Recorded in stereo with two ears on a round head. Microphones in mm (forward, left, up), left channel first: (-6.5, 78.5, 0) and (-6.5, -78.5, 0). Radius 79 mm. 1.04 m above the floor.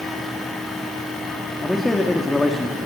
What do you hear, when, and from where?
1.6 s a man speaking: centre (ahead or behind), 1.6 m